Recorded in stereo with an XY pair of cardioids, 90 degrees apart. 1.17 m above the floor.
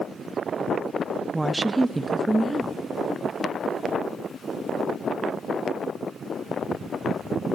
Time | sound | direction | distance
1.3 | a woman speaking | 20° right | 0.7 m